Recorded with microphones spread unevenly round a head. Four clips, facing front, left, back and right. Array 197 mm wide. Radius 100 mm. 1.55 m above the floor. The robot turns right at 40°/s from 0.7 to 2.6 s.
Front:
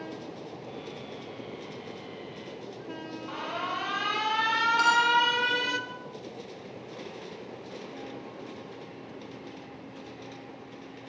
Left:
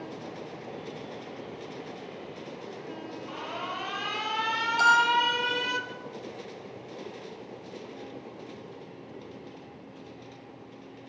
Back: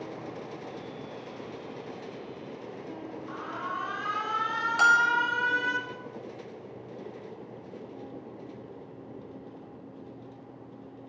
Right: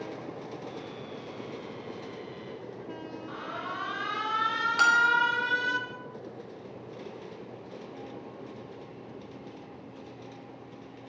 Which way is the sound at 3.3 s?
15° left.